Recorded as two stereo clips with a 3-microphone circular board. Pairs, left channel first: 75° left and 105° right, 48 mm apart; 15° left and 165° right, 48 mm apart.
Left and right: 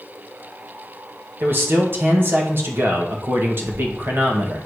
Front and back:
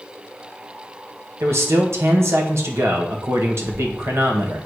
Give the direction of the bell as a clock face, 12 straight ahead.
No bell in this recording.